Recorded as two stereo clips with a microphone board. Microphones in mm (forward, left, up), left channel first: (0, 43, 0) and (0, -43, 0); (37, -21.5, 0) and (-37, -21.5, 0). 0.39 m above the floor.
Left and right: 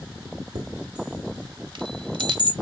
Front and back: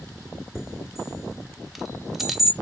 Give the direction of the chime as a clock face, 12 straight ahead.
3 o'clock.